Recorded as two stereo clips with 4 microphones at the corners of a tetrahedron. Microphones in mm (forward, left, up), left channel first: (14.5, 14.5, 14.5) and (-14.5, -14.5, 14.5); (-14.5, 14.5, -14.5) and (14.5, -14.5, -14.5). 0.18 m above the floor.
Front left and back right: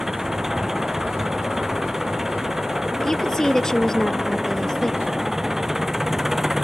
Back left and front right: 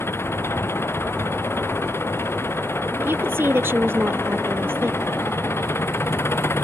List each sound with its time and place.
0.0 s an engine running: 145° left
3.0 s a woman speaking: 30° right